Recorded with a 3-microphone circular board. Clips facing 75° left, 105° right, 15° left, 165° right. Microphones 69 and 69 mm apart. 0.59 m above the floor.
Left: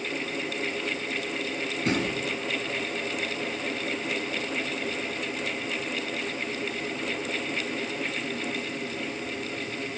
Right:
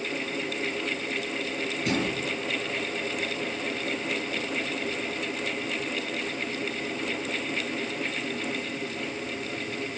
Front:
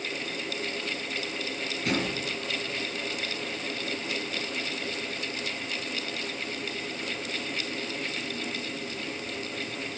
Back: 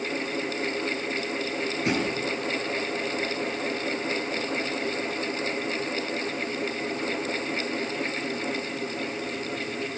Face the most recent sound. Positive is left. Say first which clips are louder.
# left 1 dB, back 2 dB
turn(degrees=120)